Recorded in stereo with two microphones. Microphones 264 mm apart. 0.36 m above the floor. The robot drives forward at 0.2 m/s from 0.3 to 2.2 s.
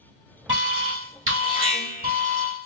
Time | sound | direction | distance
0.5 | an alarm | 50° right (ahead or behind) | 1.5 m